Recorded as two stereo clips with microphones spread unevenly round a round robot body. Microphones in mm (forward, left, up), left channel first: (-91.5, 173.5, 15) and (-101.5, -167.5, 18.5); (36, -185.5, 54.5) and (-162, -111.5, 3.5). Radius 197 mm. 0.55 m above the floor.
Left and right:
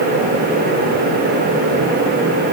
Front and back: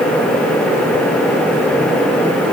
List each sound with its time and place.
Only background noise.